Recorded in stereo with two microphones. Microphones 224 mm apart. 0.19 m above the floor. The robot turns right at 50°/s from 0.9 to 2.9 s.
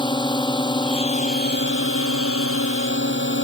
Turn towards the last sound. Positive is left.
turn(degrees=120)